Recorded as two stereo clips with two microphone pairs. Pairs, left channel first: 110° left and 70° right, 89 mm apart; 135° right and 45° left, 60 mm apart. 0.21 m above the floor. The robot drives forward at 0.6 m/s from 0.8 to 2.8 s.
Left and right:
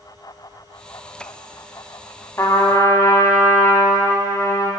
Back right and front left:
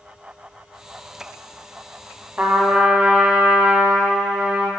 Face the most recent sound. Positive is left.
turn(degrees=125)